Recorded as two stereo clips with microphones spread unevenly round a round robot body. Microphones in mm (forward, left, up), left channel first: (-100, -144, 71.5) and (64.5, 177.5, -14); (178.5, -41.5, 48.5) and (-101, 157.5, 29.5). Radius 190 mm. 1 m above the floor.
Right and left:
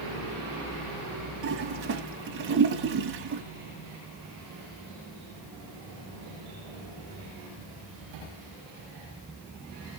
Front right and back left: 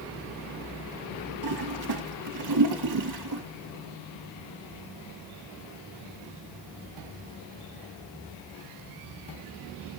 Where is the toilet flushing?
115° left, 2 m.